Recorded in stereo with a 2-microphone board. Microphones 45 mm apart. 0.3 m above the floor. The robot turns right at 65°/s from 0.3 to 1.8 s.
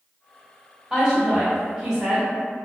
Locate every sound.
0.9 s a woman speaking: 10° right (ahead or behind), 1.2 m; by 2.3 s 20° right (ahead or behind), 1.2 m